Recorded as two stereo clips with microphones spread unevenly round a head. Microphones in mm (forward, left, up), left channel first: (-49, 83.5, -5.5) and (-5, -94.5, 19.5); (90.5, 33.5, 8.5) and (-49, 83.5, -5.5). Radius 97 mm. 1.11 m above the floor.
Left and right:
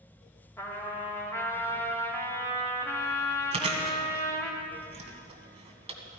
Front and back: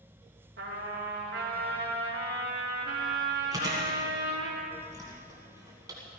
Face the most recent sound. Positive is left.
turn(degrees=-125)